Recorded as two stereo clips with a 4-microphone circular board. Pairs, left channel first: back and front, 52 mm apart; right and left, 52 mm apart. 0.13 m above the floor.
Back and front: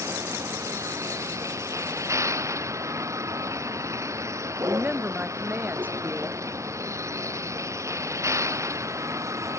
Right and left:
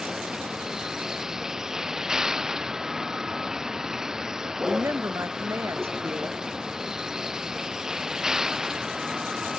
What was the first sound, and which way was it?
A vehicle, 10° left.